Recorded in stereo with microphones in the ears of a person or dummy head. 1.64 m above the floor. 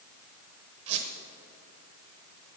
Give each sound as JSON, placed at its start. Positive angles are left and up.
{"t": 0.9, "sound": "a squeak", "side_deg": -40, "distance_m": 0.8}